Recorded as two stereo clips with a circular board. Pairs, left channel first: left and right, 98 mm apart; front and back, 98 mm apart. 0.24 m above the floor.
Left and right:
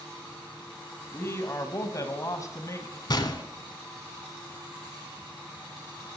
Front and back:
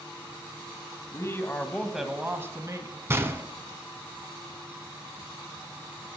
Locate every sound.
1.1 s a man speaking: 35° left, 1.7 m; by 3.0 s 140° left, 2 m
3.1 s a gunshot: 120° left, 0.9 m